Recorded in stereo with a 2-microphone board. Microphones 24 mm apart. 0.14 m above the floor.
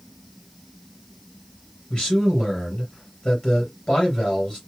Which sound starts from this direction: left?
A man speaking, at 1.9 s.